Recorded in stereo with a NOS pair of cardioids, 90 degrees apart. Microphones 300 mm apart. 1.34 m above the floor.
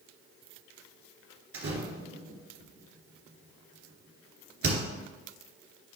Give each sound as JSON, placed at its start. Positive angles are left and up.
{"t": 1.5, "sound": "a door slam", "azimuth_deg": -45, "distance_m": 2.5}